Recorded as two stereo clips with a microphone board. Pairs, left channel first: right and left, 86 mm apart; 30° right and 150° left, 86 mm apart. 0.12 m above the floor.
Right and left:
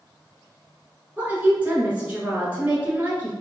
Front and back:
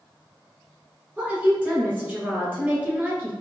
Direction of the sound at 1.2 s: 125° left.